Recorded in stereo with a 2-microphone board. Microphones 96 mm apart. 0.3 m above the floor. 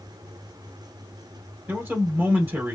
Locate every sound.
1.7 s a man speaking: 20° right (ahead or behind), 1.6 m